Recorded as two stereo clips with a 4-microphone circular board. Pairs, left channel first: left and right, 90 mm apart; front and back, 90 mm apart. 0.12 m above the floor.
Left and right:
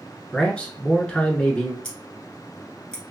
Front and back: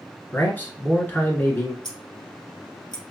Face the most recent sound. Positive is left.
turn(degrees=10)